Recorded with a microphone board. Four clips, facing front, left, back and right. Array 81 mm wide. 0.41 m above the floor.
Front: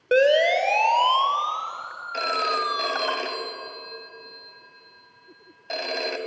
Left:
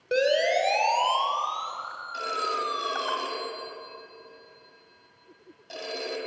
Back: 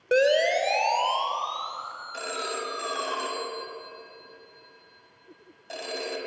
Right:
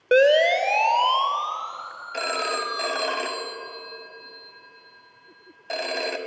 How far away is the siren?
About 2 m.